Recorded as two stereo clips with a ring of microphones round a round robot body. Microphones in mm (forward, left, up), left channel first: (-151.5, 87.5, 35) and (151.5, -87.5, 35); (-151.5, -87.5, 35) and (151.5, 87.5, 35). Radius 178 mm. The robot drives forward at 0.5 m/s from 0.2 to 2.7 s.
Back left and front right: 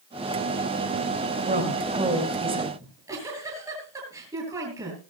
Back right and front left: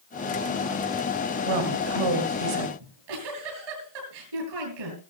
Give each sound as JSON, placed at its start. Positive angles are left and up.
{"t": 1.5, "sound": "a woman speaking", "azimuth_deg": 40, "distance_m": 3.5}
{"t": 2.8, "sound": "a giggle", "azimuth_deg": 50, "distance_m": 9.5}